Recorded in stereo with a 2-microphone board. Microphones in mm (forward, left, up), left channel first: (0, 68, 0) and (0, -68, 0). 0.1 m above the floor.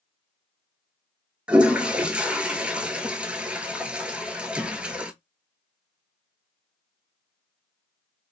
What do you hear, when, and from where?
1.5 s a toilet flushing: 10° right (ahead or behind), 0.5 m